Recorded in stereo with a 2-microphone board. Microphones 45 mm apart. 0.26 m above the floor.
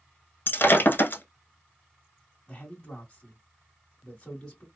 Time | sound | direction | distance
0.5 | breaking glass | 50° left (ahead or behind) | 0.6 m
2.5 | a man speaking | 15° left (ahead or behind) | 1.4 m